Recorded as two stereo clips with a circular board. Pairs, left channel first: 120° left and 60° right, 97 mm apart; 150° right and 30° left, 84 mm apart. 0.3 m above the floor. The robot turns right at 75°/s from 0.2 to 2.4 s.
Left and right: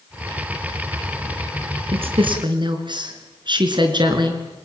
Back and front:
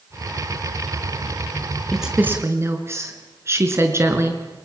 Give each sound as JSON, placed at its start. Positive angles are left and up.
{"t": 1.9, "sound": "a woman speaking", "azimuth_deg": -65, "distance_m": 4.0}